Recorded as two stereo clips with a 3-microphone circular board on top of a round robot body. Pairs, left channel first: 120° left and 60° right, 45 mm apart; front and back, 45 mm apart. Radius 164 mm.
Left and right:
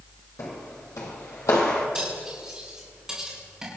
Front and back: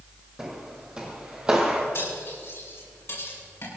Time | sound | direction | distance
0.4 | footsteps | 110° left | 2.5 m
1.9 | cutlery clinking | 15° left | 7.5 m